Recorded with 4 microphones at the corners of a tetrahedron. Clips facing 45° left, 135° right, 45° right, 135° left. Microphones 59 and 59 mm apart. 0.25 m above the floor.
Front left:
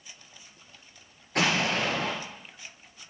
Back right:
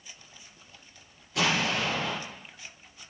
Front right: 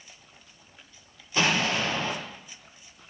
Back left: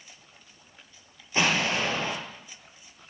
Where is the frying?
I don't hear frying.